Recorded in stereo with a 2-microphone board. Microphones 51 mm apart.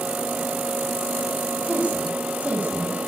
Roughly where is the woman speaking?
Right.